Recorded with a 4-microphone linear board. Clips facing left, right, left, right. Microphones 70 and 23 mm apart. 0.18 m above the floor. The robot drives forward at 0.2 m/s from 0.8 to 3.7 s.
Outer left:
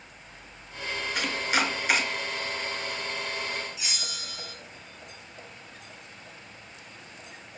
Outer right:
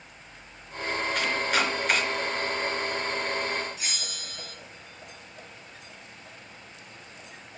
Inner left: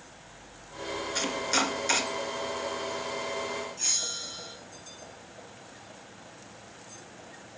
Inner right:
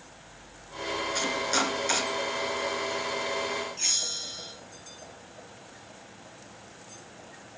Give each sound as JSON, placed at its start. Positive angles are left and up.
{"t": 1.1, "sound": "chopping", "side_deg": 5, "distance_m": 2.0}
{"t": 3.8, "sound": "a bell", "side_deg": -40, "distance_m": 3.5}